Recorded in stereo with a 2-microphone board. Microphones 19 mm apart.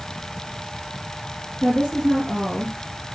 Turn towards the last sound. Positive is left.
turn(degrees=35)  # may be behind; listen again after turning